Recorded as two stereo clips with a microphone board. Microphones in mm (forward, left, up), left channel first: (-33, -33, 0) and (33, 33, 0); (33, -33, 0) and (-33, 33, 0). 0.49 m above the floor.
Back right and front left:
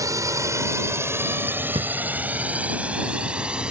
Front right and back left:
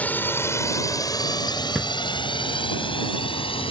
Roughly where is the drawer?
Ahead left.